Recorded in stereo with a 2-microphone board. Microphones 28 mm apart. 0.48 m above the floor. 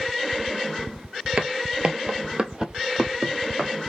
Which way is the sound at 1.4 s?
40° right (ahead or behind).